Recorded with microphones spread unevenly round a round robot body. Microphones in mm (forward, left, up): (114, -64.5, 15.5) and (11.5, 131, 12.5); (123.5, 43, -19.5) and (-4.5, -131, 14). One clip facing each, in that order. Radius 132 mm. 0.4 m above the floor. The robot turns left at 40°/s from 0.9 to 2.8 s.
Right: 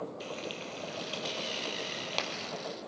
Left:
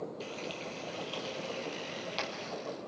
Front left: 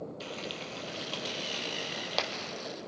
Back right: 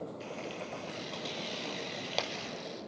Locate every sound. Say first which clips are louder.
0.2 s frying: right 1 dB, even; 10° left, 2 m; by 2.5 s 50° right, 2 m